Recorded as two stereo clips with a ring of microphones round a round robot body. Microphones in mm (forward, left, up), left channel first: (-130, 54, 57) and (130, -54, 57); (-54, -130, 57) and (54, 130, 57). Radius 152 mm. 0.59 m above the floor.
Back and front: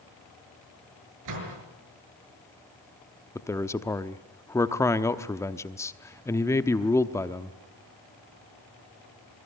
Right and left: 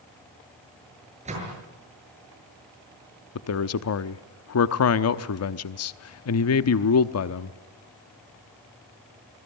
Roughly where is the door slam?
Ahead.